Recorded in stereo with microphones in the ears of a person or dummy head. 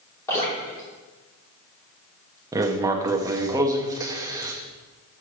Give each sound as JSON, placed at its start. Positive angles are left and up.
{"t": 0.3, "sound": "dripping", "side_deg": 20, "distance_m": 3.5}
{"t": 2.5, "sound": "writing", "side_deg": -20, "distance_m": 0.6}